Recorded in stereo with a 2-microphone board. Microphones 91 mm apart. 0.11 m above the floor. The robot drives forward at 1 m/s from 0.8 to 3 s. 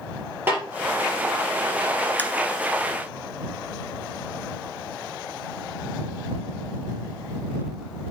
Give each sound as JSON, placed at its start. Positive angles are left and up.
{"t": 0.5, "sound": "a snare drum", "side_deg": -25, "distance_m": 3.0}
{"t": 2.2, "sound": "tapping", "side_deg": 20, "distance_m": 0.8}